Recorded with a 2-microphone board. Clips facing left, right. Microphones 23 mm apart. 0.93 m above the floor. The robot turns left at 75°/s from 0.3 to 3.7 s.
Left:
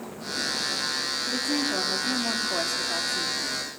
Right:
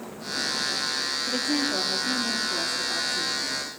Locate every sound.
1.3 s a woman speaking: 150° right, 2.5 m; by 3.7 s 30° left, 2.5 m